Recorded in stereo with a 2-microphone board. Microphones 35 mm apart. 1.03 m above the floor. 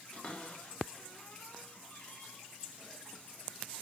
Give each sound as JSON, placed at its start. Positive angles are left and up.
{"t": 0.1, "sound": "a cupboard door", "side_deg": 40, "distance_m": 2.5}